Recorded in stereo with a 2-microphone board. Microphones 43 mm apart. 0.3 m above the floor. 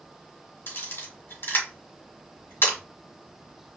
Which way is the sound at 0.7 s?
65° left (ahead or behind).